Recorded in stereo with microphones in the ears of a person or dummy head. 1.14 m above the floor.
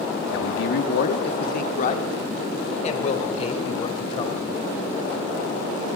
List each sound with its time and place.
0.3 s a man speaking: 80° left, 1.7 m; by 4.5 s 30° left (ahead or behind), 5 m